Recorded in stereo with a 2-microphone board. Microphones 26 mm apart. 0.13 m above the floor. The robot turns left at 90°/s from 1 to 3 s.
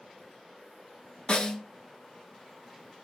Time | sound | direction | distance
1.3 | a snare drum | 70° left | 0.7 m